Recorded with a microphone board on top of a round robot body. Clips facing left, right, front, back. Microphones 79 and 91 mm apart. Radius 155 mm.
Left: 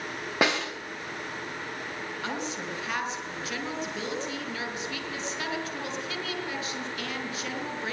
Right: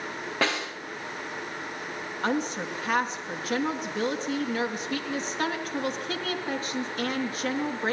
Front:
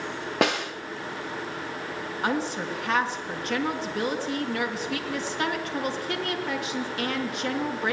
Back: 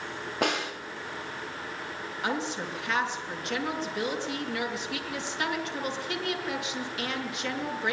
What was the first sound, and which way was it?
A snare drum, 15° left.